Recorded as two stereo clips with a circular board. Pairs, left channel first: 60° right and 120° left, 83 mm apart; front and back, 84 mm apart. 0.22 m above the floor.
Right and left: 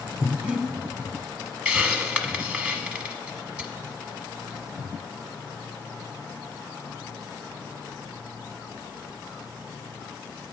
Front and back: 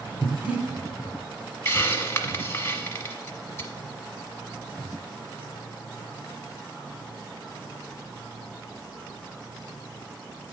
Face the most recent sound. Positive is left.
turn(degrees=45)